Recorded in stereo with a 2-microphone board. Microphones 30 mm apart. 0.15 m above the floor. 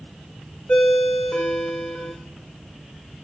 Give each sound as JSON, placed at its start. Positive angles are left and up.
{"t": 0.7, "sound": "a ringtone", "side_deg": 50, "distance_m": 5.5}